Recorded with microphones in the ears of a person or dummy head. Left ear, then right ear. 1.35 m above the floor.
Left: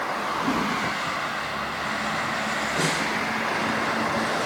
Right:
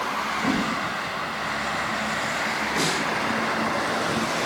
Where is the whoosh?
55° right (ahead or behind), 1.7 m.